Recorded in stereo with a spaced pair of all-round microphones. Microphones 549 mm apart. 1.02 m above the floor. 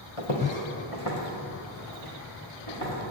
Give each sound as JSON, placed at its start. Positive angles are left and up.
{"t": 0.2, "sound": "footsteps", "side_deg": 65, "distance_m": 2.0}